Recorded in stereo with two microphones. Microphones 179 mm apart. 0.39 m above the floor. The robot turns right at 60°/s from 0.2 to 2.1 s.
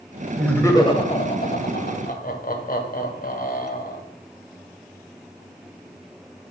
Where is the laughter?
Centre (ahead or behind), 1.9 m; by 4.0 s 50° left (ahead or behind), 1.9 m.